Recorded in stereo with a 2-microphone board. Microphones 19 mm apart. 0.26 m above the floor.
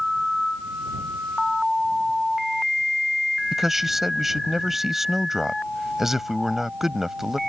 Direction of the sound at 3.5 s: 20° right (ahead or behind).